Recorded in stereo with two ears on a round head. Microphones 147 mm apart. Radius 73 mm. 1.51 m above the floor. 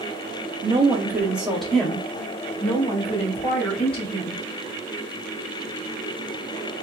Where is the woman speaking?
35° right (ahead or behind), 1.1 m; by 4.4 s 35° left (ahead or behind), 2.5 m.